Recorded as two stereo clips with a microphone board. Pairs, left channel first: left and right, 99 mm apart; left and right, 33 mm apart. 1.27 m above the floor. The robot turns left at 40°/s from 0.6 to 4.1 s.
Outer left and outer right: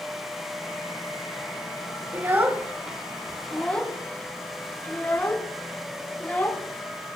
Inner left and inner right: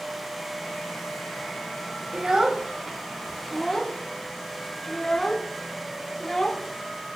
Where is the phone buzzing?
I don't hear a phone buzzing.